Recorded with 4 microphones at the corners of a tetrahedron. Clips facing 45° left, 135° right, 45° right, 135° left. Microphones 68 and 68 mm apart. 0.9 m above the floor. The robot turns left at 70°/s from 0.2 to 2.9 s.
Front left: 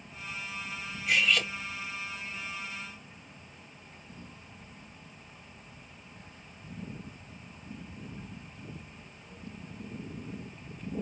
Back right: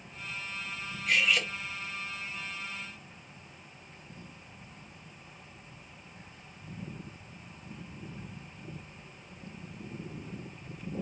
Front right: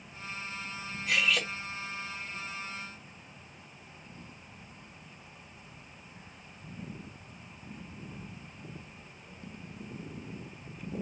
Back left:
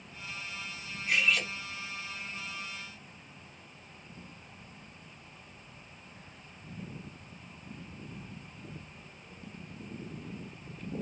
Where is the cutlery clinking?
35° right, 2 m; by 1.5 s 70° right, 2 m.